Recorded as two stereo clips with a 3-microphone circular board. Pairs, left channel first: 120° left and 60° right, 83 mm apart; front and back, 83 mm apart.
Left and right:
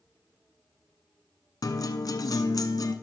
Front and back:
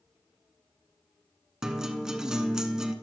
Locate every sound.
1.6 s a guitar: 100° left, 0.8 m